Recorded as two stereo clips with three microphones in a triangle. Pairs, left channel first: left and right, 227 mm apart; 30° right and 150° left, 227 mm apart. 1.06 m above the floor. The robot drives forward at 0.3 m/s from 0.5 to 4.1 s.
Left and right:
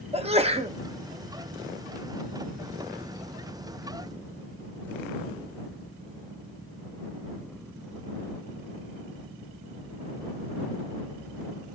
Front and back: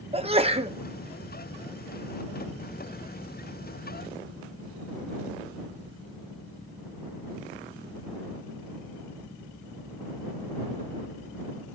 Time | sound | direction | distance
0.1 | a sneeze | 150° right | 0.9 m